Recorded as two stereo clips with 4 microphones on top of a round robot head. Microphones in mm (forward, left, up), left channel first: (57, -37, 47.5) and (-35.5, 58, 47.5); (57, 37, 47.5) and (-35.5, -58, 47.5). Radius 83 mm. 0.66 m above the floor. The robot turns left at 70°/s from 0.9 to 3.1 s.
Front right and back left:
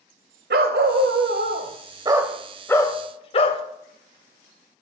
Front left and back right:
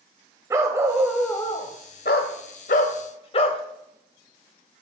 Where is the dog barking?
155° left, 0.7 m; by 3.6 s straight ahead, 0.7 m.